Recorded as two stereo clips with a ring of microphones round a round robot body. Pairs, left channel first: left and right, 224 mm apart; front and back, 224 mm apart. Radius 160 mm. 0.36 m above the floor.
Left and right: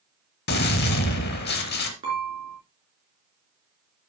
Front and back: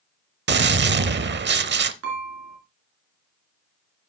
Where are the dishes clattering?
160° right, 3.5 m.